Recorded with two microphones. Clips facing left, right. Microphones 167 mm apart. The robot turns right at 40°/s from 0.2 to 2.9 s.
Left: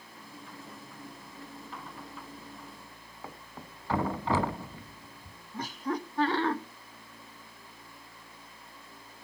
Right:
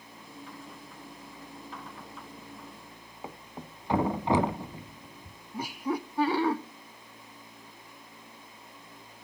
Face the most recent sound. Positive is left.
turn(degrees=-10)  # may be behind; listen again after turning